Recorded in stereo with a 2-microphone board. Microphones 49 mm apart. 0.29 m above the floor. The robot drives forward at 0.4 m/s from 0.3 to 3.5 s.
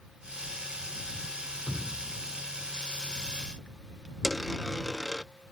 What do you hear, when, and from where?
1.7 s dripping: 15° right (ahead or behind)
4.2 s a dropped coin: 5° left (ahead or behind)